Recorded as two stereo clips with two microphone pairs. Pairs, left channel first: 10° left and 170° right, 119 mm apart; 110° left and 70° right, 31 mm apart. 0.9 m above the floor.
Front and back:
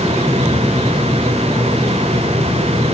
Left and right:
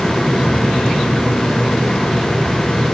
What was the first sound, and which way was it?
Only background noise.